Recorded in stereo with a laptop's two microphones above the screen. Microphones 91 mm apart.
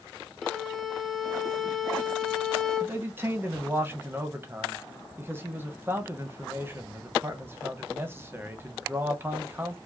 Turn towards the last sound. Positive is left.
turn(degrees=-25)  # may be behind; listen again after turning